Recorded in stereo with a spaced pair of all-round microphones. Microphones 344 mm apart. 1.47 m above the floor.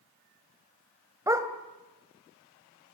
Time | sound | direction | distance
1.3 | a dog barking | 10° right (ahead or behind) | 1.6 m